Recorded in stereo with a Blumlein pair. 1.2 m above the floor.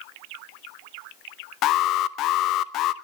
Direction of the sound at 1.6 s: 35° left.